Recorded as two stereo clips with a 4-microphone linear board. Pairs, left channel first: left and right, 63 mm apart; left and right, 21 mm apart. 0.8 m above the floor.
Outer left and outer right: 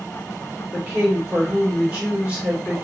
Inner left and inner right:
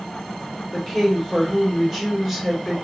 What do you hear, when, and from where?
0.7 s a woman speaking: 15° right (ahead or behind), 1.9 m